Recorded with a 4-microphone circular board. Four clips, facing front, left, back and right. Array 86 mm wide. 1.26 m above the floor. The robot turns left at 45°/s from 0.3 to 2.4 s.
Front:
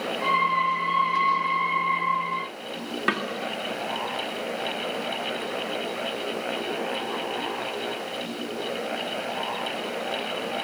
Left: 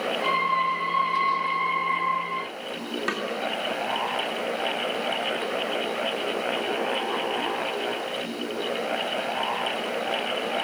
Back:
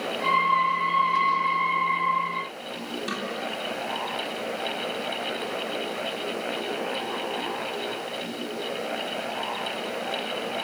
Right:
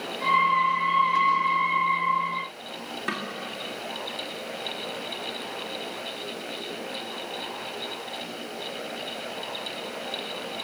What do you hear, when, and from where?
3.1 s a snare drum: 5° left, 2 m